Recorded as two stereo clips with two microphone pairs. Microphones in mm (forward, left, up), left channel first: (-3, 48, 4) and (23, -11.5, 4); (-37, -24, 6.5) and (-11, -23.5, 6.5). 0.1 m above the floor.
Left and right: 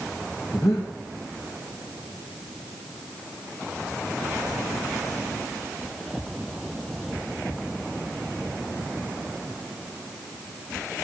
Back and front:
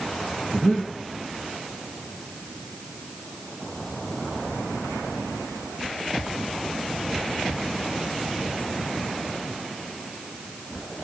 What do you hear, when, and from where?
0.5 s breathing: 75° left, 2 m